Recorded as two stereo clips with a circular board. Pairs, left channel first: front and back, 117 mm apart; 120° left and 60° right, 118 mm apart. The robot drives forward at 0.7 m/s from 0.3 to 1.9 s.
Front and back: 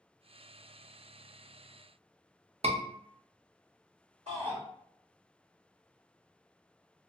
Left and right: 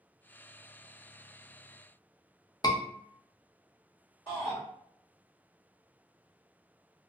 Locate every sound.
2.6 s a scream: 170° left, 0.6 m
4.3 s a shout: 165° left, 1.7 m